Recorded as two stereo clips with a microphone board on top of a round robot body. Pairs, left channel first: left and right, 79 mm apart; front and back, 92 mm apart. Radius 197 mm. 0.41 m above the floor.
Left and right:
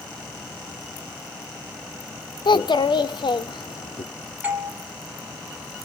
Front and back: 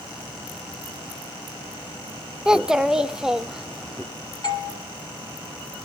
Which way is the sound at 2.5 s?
100° left.